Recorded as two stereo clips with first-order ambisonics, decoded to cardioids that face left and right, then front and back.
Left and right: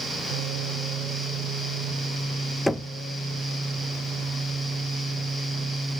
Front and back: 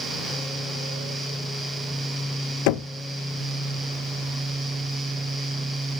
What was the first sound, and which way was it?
Knocking, straight ahead.